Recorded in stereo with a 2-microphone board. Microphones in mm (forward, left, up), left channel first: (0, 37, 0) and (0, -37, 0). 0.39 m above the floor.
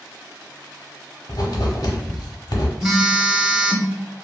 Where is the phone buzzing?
10° right (ahead or behind), 0.7 m.